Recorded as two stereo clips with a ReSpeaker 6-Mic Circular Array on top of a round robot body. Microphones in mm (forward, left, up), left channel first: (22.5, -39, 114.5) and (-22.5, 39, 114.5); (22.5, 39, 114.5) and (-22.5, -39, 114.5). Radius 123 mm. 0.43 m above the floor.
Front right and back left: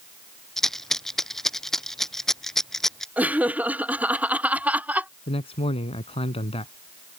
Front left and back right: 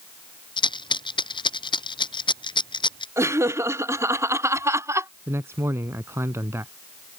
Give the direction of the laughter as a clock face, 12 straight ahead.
6 o'clock.